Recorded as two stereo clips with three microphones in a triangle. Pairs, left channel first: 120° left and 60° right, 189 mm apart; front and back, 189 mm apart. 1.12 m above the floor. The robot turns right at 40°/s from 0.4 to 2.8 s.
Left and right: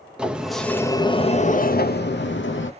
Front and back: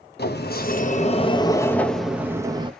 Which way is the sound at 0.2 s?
25° left.